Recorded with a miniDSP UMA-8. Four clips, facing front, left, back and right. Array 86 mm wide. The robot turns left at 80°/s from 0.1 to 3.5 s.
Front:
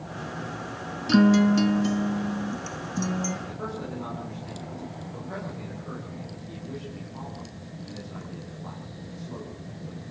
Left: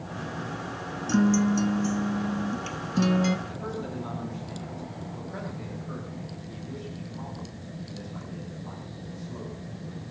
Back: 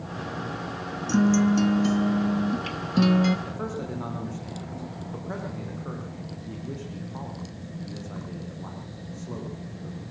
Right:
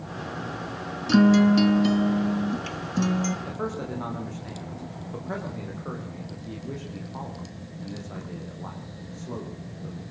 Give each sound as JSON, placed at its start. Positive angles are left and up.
{"t": 1.1, "sound": "a guitar", "azimuth_deg": -35, "distance_m": 0.6}
{"t": 3.5, "sound": "a man speaking", "azimuth_deg": -110, "distance_m": 8.5}